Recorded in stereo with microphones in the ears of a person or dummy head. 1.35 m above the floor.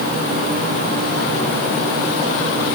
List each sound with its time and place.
Only background noise.